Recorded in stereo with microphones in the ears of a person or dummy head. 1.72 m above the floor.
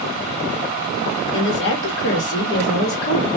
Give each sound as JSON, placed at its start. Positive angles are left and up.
{"t": 1.3, "sound": "a woman speaking", "side_deg": 70, "distance_m": 1.2}